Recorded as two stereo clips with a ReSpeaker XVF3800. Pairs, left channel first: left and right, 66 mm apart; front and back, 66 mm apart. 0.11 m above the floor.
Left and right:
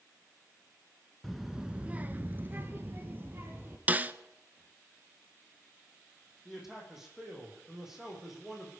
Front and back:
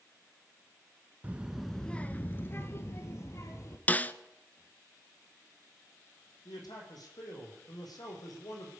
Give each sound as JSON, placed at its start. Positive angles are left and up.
{"t": 1.2, "sound": "a child speaking", "azimuth_deg": 175, "distance_m": 0.7}
{"t": 3.9, "sound": "a snare drum", "azimuth_deg": -45, "distance_m": 0.5}
{"t": 6.5, "sound": "a man speaking", "azimuth_deg": -5, "distance_m": 4.5}